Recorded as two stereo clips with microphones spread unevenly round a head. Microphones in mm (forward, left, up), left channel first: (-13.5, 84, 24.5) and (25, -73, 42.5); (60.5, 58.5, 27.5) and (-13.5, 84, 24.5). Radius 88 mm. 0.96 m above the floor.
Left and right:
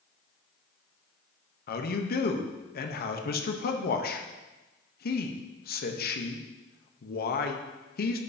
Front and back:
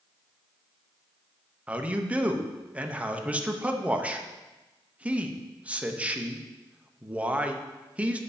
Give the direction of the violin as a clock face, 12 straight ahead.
I don't hear a violin.